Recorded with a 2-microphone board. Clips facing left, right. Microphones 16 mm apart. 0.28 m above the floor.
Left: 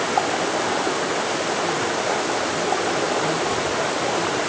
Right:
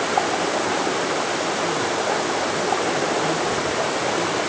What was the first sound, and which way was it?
Only background noise.